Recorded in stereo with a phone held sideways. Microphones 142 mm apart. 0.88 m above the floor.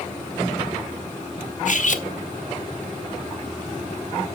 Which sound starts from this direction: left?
Cutlery clinking, at 1.6 s.